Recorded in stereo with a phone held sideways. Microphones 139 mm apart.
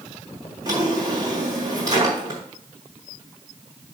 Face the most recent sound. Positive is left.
turn(degrees=-25)  # may be behind; listen again after turning